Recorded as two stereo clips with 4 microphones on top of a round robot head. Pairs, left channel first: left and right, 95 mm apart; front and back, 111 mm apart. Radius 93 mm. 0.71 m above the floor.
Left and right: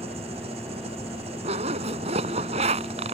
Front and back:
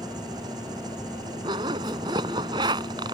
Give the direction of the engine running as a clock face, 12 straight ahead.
4 o'clock.